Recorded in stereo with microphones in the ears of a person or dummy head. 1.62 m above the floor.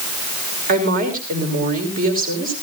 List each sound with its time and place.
0.7 s a woman speaking: 45° right (ahead or behind), 5 m